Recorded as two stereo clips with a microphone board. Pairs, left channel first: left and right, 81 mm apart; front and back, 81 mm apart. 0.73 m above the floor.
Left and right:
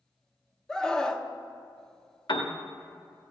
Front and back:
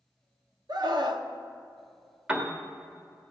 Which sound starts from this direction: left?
A piano, at 2.3 s.